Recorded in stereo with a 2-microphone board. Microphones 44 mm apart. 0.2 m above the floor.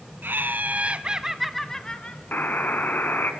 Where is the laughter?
55° right (ahead or behind), 1.6 m; by 2.2 s 25° left (ahead or behind), 1.4 m.